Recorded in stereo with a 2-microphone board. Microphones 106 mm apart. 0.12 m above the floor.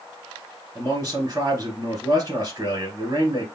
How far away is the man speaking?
About 1.8 m.